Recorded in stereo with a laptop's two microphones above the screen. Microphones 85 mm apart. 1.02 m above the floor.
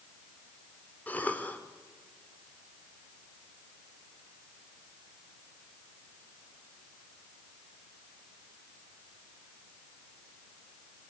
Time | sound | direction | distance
1.1 | a cough | 20° left (ahead or behind) | 2.5 m